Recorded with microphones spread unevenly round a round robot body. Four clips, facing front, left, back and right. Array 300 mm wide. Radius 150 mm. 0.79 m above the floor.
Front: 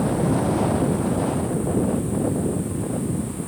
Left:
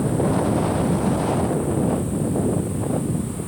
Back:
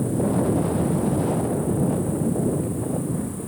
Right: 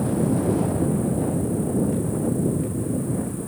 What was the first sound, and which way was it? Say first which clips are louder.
An insect: left 1 dB, front 1 dB; 115° right.